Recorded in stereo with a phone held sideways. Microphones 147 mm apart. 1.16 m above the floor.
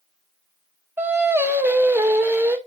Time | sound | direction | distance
1.0 | singing | 15° right (ahead or behind) | 0.9 m